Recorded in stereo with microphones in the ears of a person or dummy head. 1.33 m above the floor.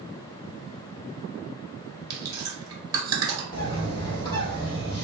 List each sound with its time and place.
2.1 s chewing: 25° right (ahead or behind), 1.2 m
3.5 s a bird: 20° left (ahead or behind), 1.3 m